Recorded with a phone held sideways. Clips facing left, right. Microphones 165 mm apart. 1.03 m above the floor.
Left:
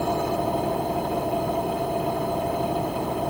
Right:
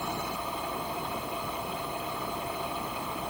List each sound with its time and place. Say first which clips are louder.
0.0 s an engine running: left 11 dB; 50° left (ahead or behind)